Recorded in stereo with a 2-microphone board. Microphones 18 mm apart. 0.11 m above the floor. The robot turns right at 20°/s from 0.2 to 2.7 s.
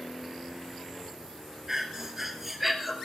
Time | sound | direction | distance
1.7 | breathing | 25° right (ahead or behind) | 1.3 m